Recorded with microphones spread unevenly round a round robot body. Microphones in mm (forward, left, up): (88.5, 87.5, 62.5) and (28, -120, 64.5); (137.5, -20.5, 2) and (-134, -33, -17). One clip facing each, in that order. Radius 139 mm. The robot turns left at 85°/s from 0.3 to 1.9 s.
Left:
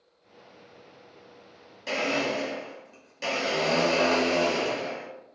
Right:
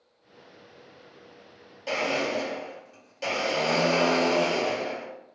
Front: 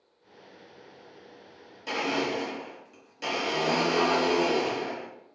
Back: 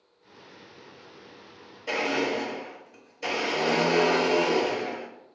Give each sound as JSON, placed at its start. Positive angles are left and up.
{"t": 1.9, "sound": "a blender", "azimuth_deg": 5, "distance_m": 1.6}